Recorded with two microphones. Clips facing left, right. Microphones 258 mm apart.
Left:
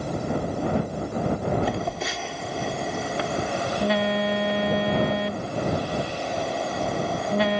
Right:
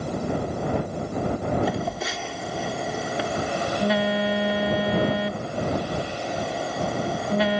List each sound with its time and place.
1.6 s a phone buzzing: 5° right (ahead or behind)